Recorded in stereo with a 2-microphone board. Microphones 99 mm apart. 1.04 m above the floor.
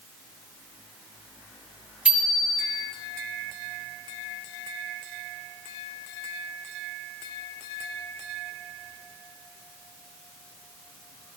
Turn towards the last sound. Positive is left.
turn(degrees=-10)  # may be behind; listen again after turning